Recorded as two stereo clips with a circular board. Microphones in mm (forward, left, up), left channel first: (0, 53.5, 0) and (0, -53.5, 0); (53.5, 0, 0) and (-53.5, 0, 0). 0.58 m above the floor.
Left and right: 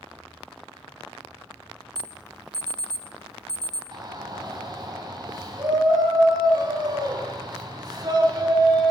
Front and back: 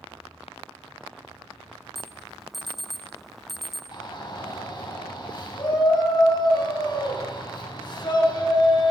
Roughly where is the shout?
Ahead right.